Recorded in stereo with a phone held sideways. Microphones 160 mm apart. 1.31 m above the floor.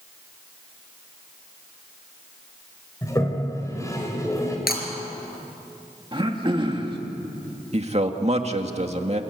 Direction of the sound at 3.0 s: 20° left (ahead or behind).